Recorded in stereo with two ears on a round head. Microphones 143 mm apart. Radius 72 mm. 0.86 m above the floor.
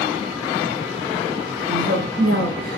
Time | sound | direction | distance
1.7 | a woman speaking | 80° right | 4 m